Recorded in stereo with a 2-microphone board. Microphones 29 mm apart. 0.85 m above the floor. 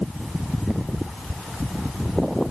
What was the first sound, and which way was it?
Only background noise.